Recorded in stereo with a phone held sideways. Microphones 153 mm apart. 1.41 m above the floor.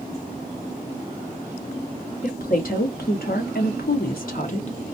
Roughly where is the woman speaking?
Left.